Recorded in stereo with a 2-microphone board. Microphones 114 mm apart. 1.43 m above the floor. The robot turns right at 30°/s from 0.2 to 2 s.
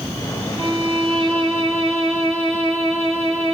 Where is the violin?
130° right, 2.5 m; by 3.5 s 85° right, 2.5 m.